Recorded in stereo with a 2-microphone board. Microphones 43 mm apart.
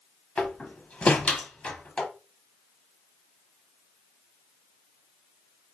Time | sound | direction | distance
0.4 | a door slam | 25° left (ahead or behind) | 0.8 m